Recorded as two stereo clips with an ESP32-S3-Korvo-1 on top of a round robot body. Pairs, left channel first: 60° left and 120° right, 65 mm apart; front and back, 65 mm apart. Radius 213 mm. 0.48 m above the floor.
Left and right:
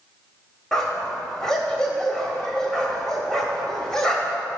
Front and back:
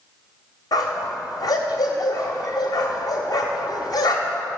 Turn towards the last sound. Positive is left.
turn(degrees=-20)